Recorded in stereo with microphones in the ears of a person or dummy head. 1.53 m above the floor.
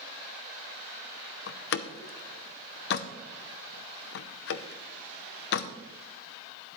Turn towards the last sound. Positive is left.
turn(degrees=60)  # may be behind; listen again after turning